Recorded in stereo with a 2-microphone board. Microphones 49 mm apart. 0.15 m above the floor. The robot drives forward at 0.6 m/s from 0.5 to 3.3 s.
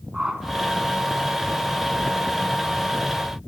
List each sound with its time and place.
0.1 s a whoosh: 15° right (ahead or behind), 0.7 m